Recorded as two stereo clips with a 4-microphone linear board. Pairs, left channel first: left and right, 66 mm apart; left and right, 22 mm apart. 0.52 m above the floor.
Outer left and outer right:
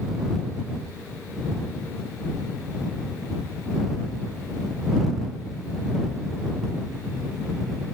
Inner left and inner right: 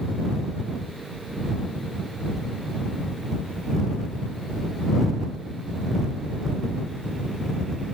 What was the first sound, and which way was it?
Only background noise.